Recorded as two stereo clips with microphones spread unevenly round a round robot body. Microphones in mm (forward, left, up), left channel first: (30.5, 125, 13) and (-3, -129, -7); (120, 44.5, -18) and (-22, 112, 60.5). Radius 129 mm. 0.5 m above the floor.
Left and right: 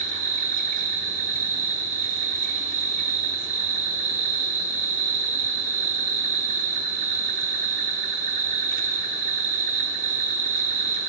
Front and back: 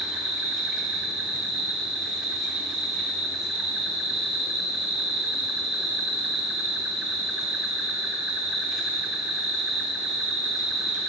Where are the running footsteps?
I don't hear running footsteps.